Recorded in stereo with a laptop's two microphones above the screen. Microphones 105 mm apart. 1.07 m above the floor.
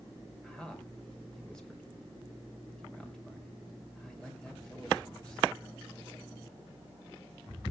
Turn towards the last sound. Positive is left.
turn(degrees=5)  # may be behind; listen again after turning